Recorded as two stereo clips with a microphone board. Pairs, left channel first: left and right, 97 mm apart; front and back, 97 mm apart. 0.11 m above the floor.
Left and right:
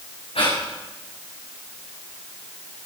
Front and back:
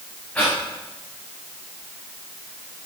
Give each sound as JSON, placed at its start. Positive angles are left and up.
{"t": 0.3, "sound": "breathing", "azimuth_deg": 75, "distance_m": 6.0}